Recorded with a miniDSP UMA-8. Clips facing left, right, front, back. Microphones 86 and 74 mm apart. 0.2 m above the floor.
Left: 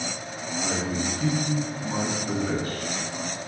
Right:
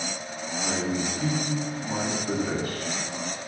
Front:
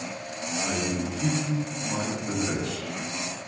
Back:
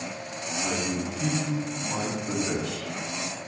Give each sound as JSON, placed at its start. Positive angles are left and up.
{"t": 0.6, "sound": "a man speaking", "azimuth_deg": -165, "distance_m": 1.6}